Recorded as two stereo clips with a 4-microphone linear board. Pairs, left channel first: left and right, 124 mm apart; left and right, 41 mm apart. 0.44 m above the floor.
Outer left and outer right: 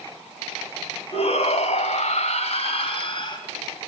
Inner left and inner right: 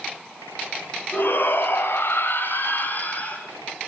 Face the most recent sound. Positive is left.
turn(degrees=40)  # may be behind; listen again after turning